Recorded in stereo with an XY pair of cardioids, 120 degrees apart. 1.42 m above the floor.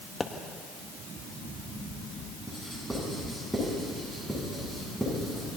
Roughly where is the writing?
Ahead.